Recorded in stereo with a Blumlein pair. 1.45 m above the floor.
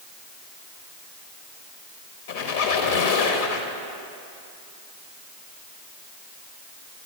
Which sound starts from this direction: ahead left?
A squeak, at 2.3 s.